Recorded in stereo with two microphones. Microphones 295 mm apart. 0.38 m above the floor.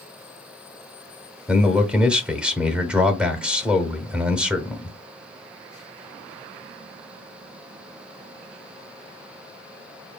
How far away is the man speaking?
About 0.9 m.